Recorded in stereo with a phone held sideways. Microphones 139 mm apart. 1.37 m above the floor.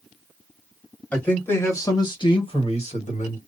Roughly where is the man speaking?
Centre.